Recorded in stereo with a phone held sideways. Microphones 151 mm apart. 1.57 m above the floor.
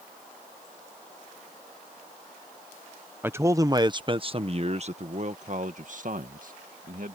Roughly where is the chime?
I don't hear a chime.